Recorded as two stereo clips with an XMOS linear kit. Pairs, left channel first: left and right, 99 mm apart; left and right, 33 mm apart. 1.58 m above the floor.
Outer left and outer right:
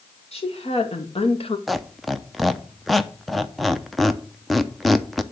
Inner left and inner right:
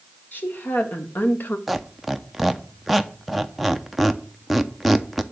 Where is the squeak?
Centre (ahead or behind), 0.6 m.